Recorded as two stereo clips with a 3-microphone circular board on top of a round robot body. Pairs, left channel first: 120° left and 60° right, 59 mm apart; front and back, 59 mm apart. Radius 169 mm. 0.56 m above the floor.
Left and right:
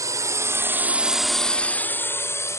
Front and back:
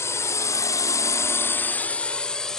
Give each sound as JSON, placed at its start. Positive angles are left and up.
{"t": 0.0, "sound": "a drone", "azimuth_deg": -40}